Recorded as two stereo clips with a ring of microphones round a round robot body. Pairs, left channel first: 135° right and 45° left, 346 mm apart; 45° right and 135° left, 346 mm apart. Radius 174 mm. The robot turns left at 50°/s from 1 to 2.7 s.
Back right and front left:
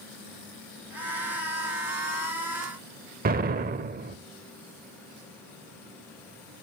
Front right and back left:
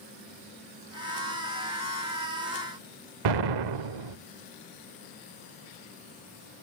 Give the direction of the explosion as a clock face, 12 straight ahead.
8 o'clock.